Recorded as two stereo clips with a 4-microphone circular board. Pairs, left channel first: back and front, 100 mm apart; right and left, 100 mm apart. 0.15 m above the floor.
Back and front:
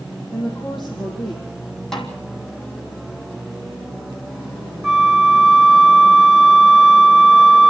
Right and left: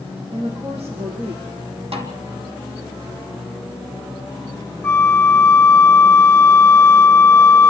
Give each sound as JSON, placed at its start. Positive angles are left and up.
{"t": 0.3, "sound": "a woman speaking", "azimuth_deg": 90, "distance_m": 5.0}
{"t": 1.9, "sound": "a snare drum", "azimuth_deg": 95, "distance_m": 2.5}
{"t": 4.8, "sound": "a flute", "azimuth_deg": -85, "distance_m": 0.7}